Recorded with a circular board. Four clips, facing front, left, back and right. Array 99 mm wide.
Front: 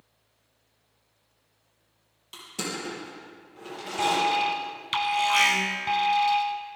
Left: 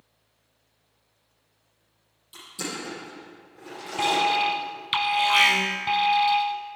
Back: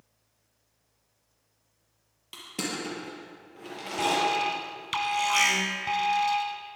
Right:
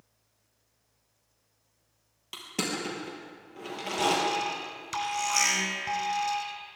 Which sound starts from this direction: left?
An alarm, at 4.0 s.